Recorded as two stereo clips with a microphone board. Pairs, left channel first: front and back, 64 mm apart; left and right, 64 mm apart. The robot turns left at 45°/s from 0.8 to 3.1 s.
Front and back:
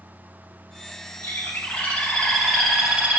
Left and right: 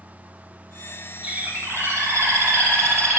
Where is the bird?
30° right, 0.8 m; by 3.2 s 115° right, 0.8 m.